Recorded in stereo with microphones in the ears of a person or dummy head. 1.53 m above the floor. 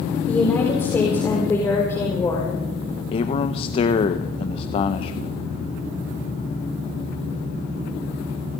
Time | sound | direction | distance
0.3 | a woman speaking | 15° left (ahead or behind) | 4 m
3.1 | a man speaking | 40° left (ahead or behind) | 1.3 m